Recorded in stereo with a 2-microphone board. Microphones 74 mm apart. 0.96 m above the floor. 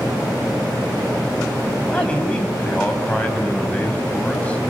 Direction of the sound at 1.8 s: 15° left (ahead or behind).